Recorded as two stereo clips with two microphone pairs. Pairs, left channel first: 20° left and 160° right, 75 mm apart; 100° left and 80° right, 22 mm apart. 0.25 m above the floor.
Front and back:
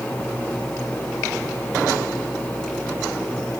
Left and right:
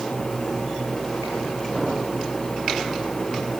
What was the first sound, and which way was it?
Only background noise.